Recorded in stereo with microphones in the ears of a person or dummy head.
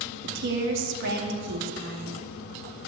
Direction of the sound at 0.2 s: 70° right (ahead or behind).